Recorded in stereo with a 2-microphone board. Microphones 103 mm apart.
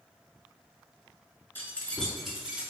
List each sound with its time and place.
1.6 s keys jangling: 25° left (ahead or behind), 0.9 m; by 2.7 s 20° right (ahead or behind), 1.0 m